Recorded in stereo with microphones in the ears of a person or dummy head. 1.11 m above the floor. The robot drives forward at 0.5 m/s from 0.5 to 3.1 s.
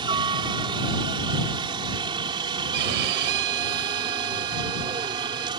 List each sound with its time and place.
0.0 s a helicopter: 25° right (ahead or behind)
2.7 s a violin: 55° right (ahead or behind)